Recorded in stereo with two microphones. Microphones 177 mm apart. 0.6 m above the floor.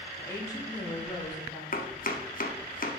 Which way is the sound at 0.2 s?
20° left (ahead or behind).